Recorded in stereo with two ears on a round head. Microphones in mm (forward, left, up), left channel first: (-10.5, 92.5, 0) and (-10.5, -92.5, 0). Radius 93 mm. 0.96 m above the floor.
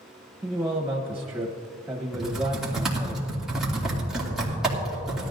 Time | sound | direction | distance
0.4 | a man speaking | 5° right (ahead or behind) | 1.0 m
2.1 | typing on a keyboard | 5° right (ahead or behind) | 2.5 m